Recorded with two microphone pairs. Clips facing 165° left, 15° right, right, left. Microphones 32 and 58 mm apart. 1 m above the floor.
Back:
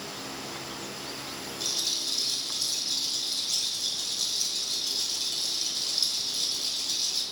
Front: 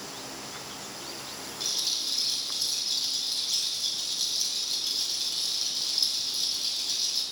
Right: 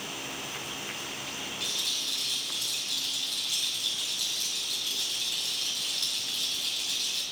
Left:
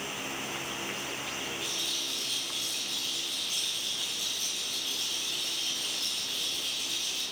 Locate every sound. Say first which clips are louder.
1.6 s a rattle: even, even; 100° right, 4.5 m